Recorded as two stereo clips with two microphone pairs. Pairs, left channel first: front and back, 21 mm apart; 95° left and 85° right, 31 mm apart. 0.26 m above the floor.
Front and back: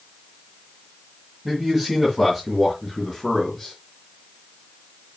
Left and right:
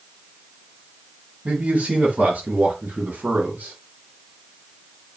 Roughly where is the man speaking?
Right.